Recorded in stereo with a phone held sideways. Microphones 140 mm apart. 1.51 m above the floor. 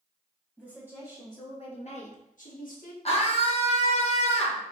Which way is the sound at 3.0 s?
45° left (ahead or behind).